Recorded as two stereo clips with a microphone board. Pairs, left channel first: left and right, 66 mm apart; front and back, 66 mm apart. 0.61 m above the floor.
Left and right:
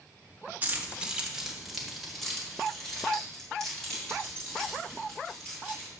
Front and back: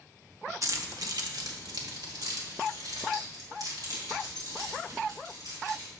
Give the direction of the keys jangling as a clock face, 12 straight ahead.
5 o'clock.